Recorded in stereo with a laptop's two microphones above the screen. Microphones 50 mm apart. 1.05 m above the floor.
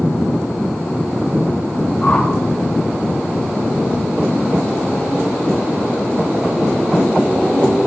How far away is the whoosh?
About 1.9 m.